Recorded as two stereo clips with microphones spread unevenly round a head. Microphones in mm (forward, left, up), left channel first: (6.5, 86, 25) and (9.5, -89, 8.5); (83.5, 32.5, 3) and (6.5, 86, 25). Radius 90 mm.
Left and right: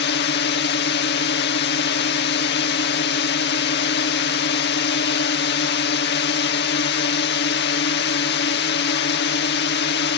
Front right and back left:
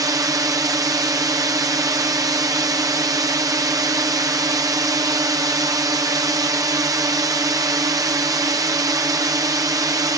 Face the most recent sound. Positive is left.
turn(degrees=90)